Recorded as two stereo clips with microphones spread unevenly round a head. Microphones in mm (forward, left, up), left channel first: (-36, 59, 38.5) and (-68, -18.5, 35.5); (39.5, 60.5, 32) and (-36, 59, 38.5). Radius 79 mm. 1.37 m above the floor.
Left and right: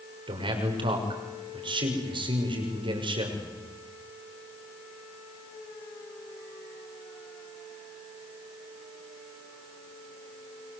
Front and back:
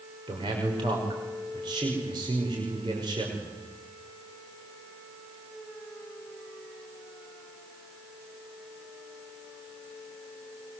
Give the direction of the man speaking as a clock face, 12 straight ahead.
4 o'clock.